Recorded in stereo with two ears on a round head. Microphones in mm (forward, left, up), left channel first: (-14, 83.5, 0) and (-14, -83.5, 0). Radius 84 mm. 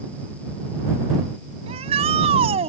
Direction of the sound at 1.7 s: 30° right (ahead or behind).